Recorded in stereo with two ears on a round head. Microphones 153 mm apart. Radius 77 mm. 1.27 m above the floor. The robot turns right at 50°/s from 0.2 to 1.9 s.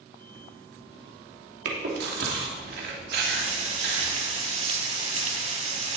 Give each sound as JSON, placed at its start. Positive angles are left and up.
{"t": 1.6, "sound": "chewing", "side_deg": -70, "distance_m": 2.5}
{"t": 3.2, "sound": "frying", "side_deg": -40, "distance_m": 3.5}